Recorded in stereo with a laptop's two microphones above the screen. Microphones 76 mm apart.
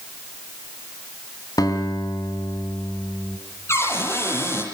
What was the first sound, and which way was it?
A guitar, 55° left (ahead or behind).